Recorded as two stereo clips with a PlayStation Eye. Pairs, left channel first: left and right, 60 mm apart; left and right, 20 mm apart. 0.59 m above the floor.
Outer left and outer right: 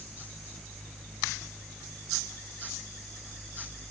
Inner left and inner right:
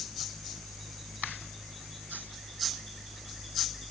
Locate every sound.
Only background noise.